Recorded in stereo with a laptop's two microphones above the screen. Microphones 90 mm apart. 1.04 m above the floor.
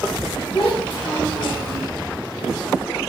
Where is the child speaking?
65° left (ahead or behind), 0.9 m; by 1.9 s 30° left (ahead or behind), 0.5 m.